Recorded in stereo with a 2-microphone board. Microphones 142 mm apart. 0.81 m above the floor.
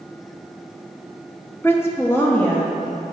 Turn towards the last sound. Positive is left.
turn(degrees=10)  # may be behind; listen again after turning